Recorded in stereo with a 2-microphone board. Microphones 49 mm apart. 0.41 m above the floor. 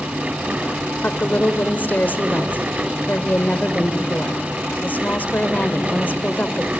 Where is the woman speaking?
40° left (ahead or behind), 1.1 m.